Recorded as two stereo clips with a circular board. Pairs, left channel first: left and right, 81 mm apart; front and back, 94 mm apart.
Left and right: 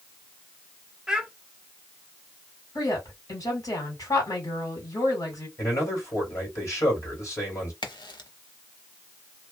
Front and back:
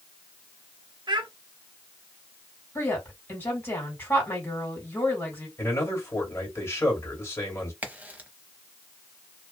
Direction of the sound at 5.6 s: 55° left.